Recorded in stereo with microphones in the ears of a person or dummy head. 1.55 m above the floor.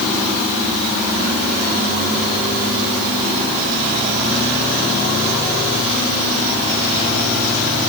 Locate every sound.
Only background noise.